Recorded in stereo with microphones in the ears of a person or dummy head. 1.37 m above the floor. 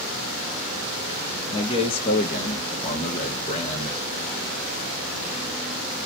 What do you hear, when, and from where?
1.5 s a man speaking: 20° left (ahead or behind), 0.6 m; by 4.0 s 25° left (ahead or behind), 1.0 m